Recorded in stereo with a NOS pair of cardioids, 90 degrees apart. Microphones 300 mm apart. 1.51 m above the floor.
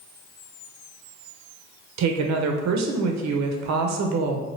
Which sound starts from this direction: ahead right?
A woman speaking, at 2.0 s.